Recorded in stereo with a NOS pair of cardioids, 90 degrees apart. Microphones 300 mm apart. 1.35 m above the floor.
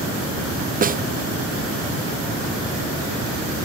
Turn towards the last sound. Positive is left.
turn(degrees=-30)